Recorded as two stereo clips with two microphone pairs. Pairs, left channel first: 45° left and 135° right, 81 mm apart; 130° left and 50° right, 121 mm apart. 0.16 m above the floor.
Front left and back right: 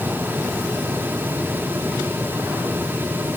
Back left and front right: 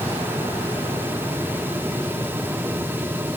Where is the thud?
No thud in this recording.